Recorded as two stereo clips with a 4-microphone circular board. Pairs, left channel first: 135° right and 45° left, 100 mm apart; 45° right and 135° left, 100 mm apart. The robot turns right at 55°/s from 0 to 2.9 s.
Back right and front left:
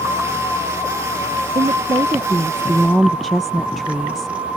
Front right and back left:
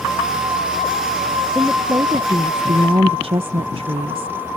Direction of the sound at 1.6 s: 60° left.